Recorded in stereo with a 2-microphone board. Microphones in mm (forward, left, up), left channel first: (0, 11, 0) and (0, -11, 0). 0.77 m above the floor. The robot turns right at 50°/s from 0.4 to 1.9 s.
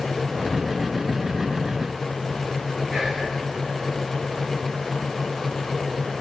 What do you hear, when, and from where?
2.9 s whispering: 35° right (ahead or behind), 1.2 m